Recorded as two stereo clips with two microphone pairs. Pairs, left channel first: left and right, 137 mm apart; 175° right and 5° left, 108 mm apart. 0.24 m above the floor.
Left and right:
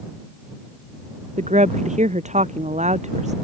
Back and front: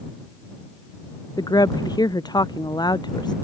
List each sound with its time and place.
1.4 s a woman speaking: 120° right; by 3.3 s 125° right